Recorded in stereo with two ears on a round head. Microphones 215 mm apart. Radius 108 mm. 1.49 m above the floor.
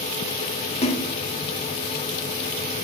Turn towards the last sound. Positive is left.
turn(degrees=25)  # may be behind; listen again after turning